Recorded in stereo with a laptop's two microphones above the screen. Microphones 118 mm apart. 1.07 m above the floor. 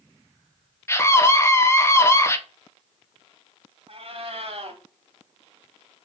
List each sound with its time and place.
0.9 s a scream: 20° left (ahead or behind), 0.6 m
3.9 s a cat meowing: 55° right (ahead or behind), 1.3 m